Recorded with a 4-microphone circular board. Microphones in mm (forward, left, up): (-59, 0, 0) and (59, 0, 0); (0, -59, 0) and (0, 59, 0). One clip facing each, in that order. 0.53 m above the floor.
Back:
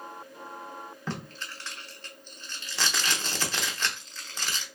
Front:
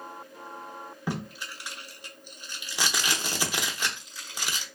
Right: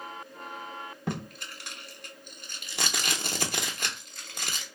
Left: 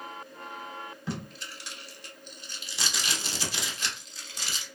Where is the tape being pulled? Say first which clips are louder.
Front 4 dB, right 3 dB; 75° right, 0.6 m.